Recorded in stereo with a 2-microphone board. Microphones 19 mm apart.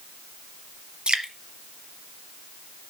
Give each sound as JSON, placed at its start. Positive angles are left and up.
{"t": 1.1, "sound": "dripping", "side_deg": -70, "distance_m": 1.3}